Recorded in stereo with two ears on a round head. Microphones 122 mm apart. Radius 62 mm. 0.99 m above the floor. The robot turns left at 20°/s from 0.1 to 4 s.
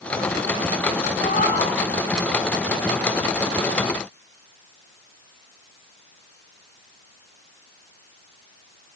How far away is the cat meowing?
About 5 m.